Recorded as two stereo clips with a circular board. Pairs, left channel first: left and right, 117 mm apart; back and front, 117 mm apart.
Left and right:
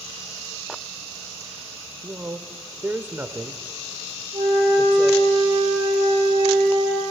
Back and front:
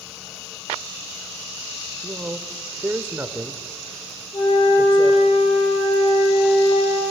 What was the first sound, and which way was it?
A man speaking, 45° right.